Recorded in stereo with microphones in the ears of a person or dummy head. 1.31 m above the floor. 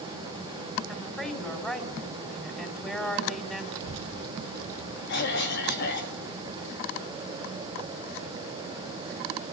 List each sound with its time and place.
0.9 s a woman speaking: 5° left (ahead or behind), 5 m
3.7 s a child speaking: 75° right (ahead or behind), 1.6 m
5.1 s a cough: 60° left (ahead or behind), 3 m